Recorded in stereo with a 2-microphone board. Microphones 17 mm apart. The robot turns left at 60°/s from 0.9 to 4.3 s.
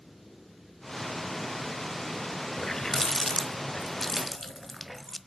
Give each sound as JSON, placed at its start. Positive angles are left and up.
{"t": 2.6, "sound": "a running tap", "side_deg": 30, "distance_m": 0.9}